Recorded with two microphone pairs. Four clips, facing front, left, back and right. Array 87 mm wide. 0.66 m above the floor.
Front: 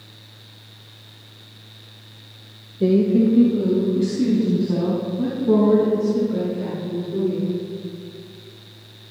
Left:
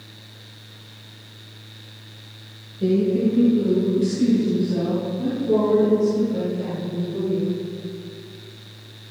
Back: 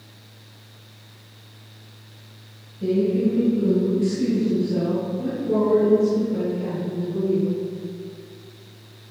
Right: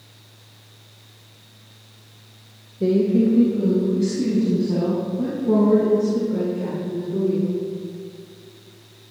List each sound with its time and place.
2.8 s a woman speaking: 25° right, 2.5 m; by 7.6 s 45° right, 9 m